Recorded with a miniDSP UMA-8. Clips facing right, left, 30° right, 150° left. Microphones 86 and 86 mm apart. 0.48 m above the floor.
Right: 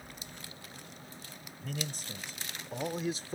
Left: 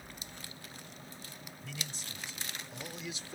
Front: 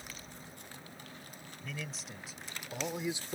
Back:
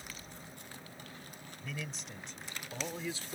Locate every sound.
1.6 s a man speaking: 120° right; by 3.4 s 75° right